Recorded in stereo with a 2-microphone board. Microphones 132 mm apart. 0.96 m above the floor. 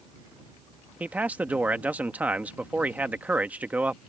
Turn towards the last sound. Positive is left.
turn(degrees=-10)  # may be behind; listen again after turning